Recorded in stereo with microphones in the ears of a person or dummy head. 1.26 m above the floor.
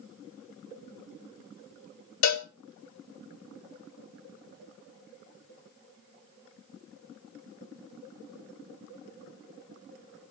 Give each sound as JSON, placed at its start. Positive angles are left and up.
{"t": 2.2, "sound": "a cowbell", "side_deg": 75, "distance_m": 0.7}